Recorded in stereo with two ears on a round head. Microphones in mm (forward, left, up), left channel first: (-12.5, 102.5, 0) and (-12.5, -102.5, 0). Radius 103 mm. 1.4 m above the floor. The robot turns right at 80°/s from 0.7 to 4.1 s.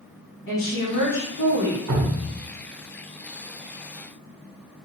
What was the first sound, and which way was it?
A woman speaking, 60° left.